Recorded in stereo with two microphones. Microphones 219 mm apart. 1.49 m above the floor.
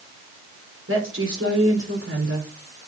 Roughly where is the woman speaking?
Right.